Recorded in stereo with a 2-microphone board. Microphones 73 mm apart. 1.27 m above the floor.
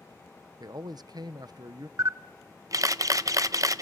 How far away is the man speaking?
About 0.7 m.